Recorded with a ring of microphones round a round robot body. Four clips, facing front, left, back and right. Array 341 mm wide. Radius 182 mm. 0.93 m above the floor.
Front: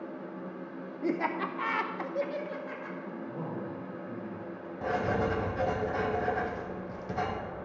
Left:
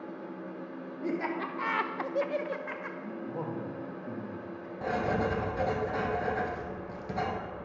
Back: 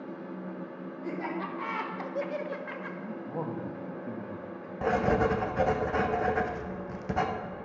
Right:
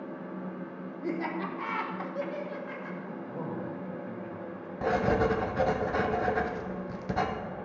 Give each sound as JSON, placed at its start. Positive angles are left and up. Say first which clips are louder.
{"t": 1.0, "sound": "laughter", "louder": "even, front 4 dB", "azimuth_deg": 0, "distance_m": 1.1}
{"t": 3.0, "sound": "a man speaking", "louder": "left 1 dB, back 3 dB", "azimuth_deg": 165, "distance_m": 1.3}
{"t": 4.8, "sound": "writing", "louder": "right 4 dB, back 4 dB", "azimuth_deg": -140, "distance_m": 1.0}